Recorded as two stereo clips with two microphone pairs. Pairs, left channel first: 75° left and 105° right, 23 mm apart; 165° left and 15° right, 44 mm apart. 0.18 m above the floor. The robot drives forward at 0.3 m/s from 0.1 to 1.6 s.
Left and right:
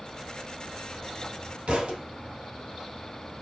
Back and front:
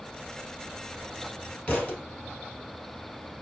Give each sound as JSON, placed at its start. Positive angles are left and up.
{"t": 1.7, "sound": "a thud", "azimuth_deg": -140, "distance_m": 1.8}